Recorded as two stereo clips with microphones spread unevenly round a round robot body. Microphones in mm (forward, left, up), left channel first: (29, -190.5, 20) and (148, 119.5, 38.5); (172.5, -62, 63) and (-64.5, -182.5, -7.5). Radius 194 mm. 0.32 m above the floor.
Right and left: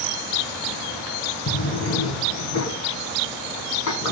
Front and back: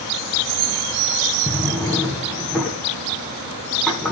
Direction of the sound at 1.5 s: 60° right.